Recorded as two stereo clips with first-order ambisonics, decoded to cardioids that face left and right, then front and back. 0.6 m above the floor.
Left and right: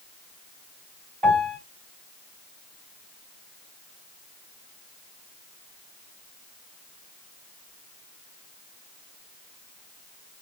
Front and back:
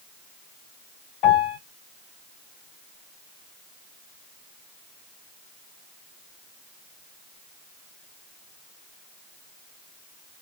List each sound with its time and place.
1.2 s a piano: 30° right, 2 m